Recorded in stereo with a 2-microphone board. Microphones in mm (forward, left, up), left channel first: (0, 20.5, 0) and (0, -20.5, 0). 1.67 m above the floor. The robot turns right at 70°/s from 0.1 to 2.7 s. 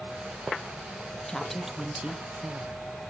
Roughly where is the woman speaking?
Behind.